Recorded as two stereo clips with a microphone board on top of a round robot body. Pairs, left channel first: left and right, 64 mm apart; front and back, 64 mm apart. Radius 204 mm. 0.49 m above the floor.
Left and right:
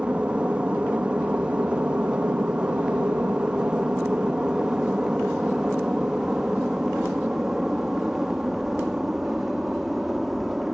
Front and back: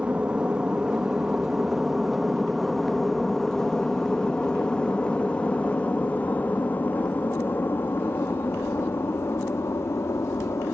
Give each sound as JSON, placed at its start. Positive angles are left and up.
{"t": 0.0, "sound": "an aircraft", "azimuth_deg": -135}